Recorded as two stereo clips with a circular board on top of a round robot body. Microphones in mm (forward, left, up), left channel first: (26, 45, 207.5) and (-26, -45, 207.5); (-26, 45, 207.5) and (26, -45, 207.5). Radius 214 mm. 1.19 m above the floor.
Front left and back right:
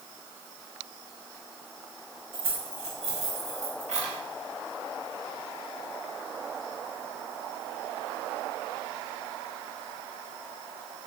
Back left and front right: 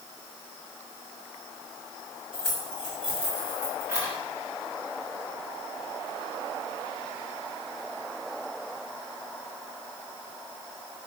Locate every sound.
2.3 s keys jangling: 150° right, 6.5 m; by 4.2 s 125° right, 7 m